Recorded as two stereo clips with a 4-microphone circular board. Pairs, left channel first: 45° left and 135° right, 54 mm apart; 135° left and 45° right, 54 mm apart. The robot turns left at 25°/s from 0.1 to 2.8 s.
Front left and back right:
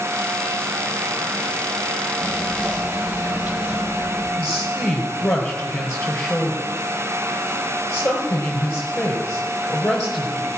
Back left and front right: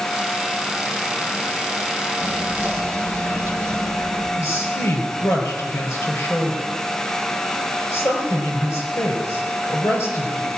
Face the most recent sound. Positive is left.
turn(degrees=115)